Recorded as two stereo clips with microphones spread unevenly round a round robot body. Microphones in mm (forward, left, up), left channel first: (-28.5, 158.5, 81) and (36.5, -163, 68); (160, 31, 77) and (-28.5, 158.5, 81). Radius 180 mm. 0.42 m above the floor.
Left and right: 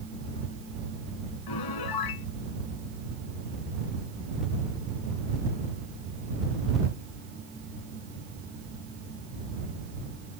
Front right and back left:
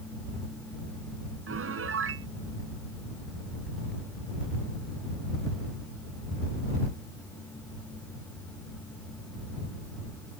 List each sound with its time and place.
1.5 s a piano: 120° left